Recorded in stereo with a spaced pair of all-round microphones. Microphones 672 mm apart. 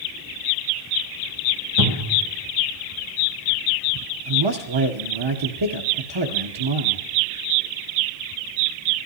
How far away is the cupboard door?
About 1.9 m.